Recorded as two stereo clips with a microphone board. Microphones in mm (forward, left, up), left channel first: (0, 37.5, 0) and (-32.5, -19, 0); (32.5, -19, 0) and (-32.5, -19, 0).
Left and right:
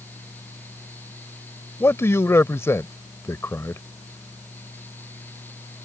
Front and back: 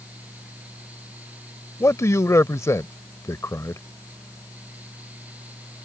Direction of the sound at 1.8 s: 25° left.